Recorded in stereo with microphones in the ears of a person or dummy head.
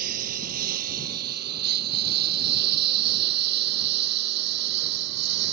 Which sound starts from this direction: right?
A lawn mower, at 0.0 s.